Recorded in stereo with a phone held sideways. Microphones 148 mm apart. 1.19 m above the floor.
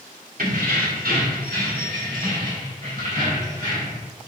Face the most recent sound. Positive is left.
turn(degrees=-60)  # may be behind; listen again after turning